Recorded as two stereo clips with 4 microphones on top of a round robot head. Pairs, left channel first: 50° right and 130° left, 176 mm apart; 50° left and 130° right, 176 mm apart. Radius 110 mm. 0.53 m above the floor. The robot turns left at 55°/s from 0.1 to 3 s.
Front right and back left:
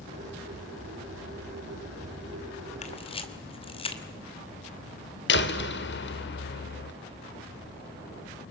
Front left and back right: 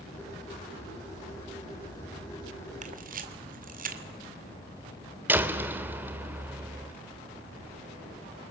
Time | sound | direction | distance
2.8 | a camera shutter | 90° right | 2 m
5.3 | a door slam | 55° right | 1.4 m